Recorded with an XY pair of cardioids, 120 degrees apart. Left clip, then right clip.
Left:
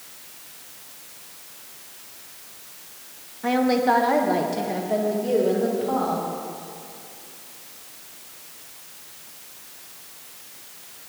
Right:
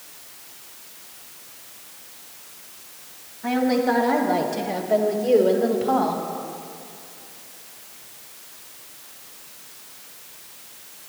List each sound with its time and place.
3.4 s a woman speaking: 30° left, 1.5 m; by 6.2 s 35° right, 2.5 m